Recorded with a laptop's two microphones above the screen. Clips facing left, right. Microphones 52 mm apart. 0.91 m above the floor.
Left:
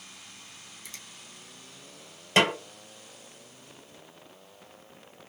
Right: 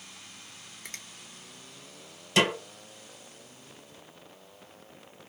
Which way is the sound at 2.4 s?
45° left (ahead or behind).